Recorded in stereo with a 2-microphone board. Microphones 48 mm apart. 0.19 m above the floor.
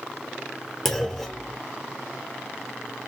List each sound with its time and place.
0.8 s a clunk: 5° left (ahead or behind), 1.0 m